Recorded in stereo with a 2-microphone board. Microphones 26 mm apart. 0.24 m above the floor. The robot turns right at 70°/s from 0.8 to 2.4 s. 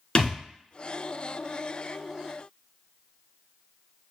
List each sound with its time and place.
0.1 s a thud: 30° left (ahead or behind), 1.0 m